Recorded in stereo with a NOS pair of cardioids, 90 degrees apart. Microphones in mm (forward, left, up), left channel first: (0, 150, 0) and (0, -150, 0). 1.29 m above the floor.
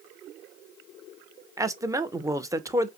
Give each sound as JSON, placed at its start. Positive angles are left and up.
{"t": 1.6, "sound": "a man speaking", "azimuth_deg": -10, "distance_m": 0.8}